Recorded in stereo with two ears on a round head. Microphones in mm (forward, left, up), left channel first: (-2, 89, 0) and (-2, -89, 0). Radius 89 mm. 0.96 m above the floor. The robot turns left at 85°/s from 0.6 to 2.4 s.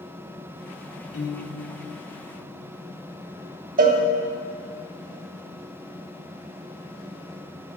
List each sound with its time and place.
1.1 s a piano: 80° left, 1.7 m; by 1.6 s 35° left, 1.7 m
3.8 s a cowbell: 45° right (ahead or behind), 1.0 m